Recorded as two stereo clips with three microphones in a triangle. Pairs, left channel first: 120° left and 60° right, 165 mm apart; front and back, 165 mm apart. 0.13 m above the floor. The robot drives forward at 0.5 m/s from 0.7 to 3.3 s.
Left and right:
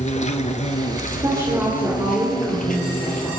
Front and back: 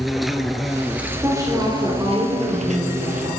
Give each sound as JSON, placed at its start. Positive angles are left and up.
{"t": 0.0, "sound": "an insect", "azimuth_deg": 90, "distance_m": 0.9}
{"t": 1.2, "sound": "a woman speaking", "azimuth_deg": -115, "distance_m": 2.5}